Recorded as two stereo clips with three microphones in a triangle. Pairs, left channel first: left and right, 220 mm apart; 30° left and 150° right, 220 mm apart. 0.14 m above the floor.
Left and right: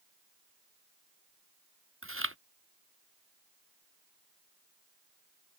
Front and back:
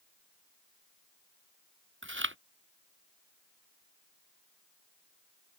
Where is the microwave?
I don't hear a microwave.